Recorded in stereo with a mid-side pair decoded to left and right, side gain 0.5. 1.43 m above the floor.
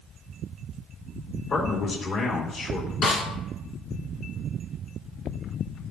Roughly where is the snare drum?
Ahead left.